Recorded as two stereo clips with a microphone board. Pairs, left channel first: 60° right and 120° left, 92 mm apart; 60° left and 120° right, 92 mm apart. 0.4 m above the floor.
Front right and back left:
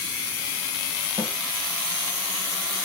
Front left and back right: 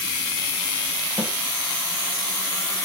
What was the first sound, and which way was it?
A snare drum, 55° right.